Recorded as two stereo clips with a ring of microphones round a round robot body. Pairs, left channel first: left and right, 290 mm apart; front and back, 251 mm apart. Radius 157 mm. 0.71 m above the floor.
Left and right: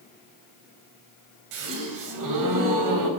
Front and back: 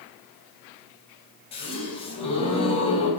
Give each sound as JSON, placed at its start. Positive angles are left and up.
{"t": 1.5, "sound": "a gasp", "azimuth_deg": -70, "distance_m": 3.5}